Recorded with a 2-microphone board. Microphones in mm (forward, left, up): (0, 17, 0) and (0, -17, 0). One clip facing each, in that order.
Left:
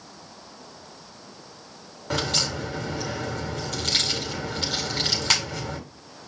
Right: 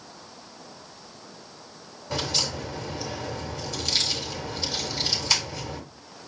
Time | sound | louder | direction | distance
2.1 | a crack | left 2 dB | 75° left (ahead or behind) | 4.5 m